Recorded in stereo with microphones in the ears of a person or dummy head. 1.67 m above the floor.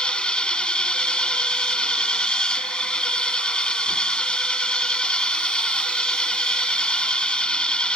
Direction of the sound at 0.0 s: 10° left (ahead or behind).